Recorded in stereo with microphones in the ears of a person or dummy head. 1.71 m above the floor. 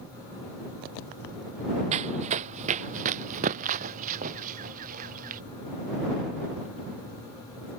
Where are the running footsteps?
40° right (ahead or behind); by 5.4 s 50° right (ahead or behind).